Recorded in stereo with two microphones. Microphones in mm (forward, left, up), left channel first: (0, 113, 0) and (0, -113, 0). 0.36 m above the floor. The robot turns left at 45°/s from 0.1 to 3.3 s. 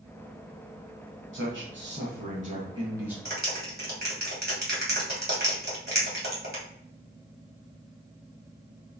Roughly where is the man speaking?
Right.